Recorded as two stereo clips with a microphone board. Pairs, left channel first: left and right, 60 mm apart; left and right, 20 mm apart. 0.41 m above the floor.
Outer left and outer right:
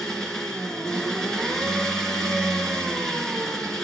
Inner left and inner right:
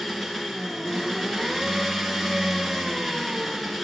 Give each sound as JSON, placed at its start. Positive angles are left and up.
{"t": 0.0, "sound": "an engine running", "side_deg": 10, "distance_m": 2.5}